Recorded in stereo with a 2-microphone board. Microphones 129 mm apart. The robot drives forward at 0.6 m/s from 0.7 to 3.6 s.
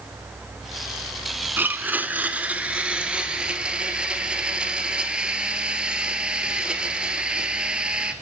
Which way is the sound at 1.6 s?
15° right (ahead or behind).